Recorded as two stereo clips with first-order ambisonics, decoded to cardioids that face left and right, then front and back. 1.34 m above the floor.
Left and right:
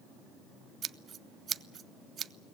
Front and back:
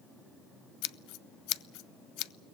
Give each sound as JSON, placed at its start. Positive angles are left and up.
{"t": 0.8, "sound": "scissors", "azimuth_deg": -30, "distance_m": 0.5}